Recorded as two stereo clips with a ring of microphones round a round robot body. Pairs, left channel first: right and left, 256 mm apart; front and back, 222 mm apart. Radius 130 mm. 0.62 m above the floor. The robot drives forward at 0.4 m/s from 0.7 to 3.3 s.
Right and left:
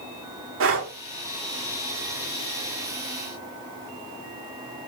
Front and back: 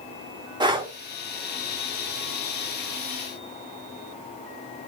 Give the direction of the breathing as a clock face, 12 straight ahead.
8 o'clock.